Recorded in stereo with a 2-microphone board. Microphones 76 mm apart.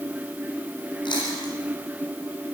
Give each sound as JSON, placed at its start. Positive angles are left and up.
{"t": 1.1, "sound": "chewing", "side_deg": 85, "distance_m": 9.0}